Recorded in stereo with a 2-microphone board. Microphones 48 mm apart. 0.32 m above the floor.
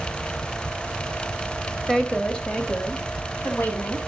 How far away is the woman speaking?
About 1.3 m.